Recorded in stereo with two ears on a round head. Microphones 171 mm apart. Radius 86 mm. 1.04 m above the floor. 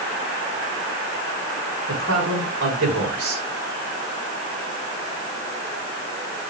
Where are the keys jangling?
No keys jangling in this recording.